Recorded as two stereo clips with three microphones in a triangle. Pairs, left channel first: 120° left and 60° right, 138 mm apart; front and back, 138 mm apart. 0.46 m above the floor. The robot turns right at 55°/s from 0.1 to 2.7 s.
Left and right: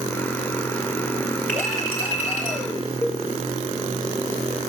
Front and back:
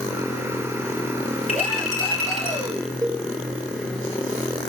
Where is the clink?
40° left, 4 m; by 2.6 s 100° left, 4 m.